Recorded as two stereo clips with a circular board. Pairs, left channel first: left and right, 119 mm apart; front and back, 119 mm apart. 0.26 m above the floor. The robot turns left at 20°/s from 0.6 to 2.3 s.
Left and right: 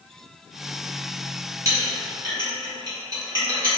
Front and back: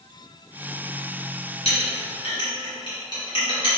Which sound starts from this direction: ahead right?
A clink, at 1.6 s.